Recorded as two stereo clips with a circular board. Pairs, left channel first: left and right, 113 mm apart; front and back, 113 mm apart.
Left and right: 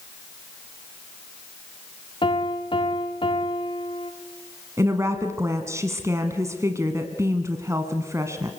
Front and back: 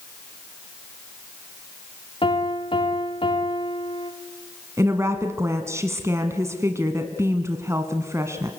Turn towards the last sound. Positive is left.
turn(degrees=-135)